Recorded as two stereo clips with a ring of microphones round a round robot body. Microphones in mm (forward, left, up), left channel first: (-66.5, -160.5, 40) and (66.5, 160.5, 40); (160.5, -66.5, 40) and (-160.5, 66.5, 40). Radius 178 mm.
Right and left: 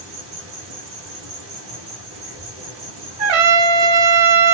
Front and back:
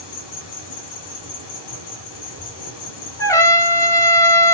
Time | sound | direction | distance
0.0 | an insect | 15° left | 5.5 m
3.2 | a trumpet | 60° left | 1.9 m